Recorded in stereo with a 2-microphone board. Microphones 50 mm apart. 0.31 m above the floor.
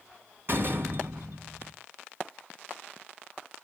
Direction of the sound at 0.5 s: 55° right (ahead or behind).